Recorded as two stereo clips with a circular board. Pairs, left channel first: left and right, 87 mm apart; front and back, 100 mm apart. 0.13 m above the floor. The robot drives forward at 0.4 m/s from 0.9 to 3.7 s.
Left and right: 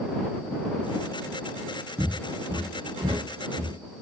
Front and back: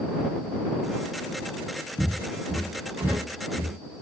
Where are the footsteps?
45° right, 1.6 m; by 3.7 s 130° right, 2 m.